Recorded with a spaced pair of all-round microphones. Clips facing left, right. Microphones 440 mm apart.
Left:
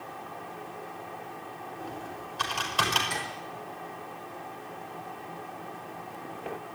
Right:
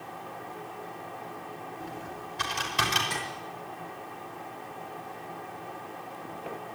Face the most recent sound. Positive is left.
turn(degrees=-50)  # may be behind; listen again after turning